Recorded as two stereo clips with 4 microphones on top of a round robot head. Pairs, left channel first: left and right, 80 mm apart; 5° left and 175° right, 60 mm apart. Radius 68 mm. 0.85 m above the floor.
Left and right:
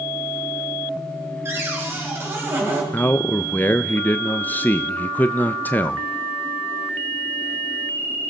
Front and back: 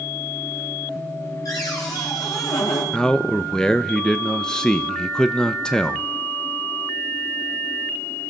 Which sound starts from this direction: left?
A man speaking, at 2.9 s.